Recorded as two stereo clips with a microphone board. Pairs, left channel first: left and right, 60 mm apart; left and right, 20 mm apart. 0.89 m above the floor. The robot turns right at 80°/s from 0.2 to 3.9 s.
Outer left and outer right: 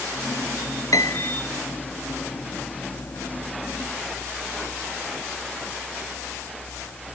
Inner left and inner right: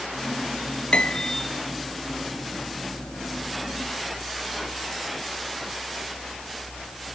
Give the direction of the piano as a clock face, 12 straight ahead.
9 o'clock.